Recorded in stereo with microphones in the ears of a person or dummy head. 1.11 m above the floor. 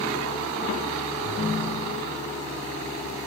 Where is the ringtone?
35° left (ahead or behind), 1.5 m.